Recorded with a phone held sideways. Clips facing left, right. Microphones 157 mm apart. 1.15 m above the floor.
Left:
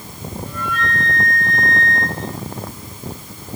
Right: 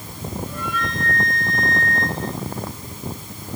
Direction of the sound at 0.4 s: 55° left (ahead or behind).